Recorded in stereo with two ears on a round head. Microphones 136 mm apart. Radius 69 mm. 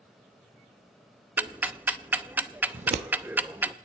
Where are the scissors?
45° right (ahead or behind), 0.9 m.